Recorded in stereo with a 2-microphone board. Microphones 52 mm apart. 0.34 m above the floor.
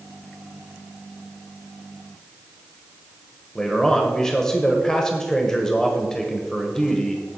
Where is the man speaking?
10° left (ahead or behind), 1.1 m.